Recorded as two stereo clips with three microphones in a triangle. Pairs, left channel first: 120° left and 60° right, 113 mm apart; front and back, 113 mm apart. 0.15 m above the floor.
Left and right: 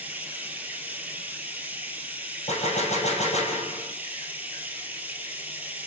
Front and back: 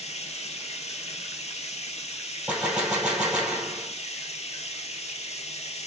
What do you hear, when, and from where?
0.0 s running water: 15° left, 1.4 m
2.5 s a gunshot: 100° left, 1.9 m